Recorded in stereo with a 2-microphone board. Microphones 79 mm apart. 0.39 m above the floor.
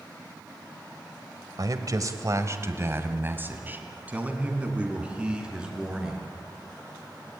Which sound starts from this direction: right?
A man speaking, at 1.6 s.